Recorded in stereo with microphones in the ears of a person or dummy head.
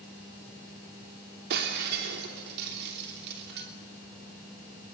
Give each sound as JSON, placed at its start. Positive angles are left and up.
{"t": 1.5, "sound": "breaking glass", "side_deg": -60, "distance_m": 3.0}